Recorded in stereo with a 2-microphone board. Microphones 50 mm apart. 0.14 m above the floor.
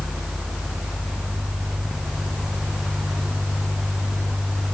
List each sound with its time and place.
Only background noise.